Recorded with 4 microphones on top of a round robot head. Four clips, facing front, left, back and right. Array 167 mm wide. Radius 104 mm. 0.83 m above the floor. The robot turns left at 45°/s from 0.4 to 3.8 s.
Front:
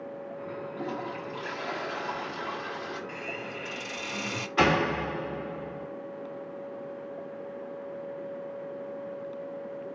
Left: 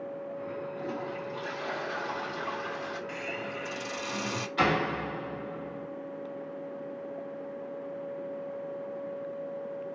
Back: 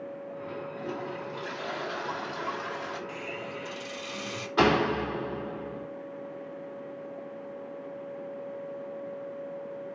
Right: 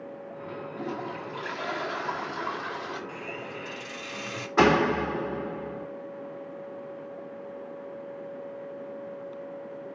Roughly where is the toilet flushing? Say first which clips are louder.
Right 1 dB, front 2 dB; ahead right.